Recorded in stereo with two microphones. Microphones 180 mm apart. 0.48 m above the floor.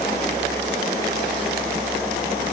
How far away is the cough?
No cough in this recording.